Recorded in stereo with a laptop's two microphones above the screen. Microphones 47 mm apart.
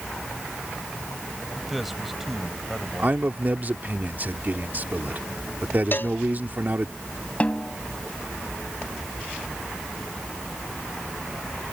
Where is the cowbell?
50° left (ahead or behind).